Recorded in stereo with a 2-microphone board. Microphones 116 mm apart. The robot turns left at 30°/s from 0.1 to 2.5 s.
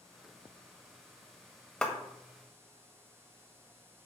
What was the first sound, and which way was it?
A clap, 5° left (ahead or behind).